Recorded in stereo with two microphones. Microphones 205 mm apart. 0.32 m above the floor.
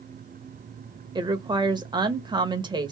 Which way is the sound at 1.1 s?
20° right (ahead or behind).